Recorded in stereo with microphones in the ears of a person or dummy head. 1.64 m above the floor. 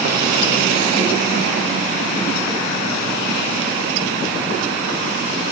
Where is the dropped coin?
No dropped coin in this recording.